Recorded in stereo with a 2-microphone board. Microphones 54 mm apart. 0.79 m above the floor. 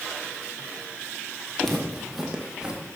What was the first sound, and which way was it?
Footsteps, 5° left (ahead or behind).